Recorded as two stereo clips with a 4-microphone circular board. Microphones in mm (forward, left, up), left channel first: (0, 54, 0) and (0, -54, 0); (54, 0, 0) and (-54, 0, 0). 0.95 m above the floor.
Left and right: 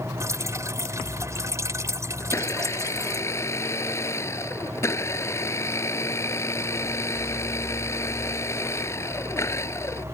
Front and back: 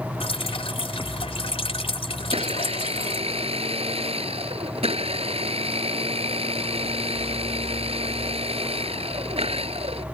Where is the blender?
155° left.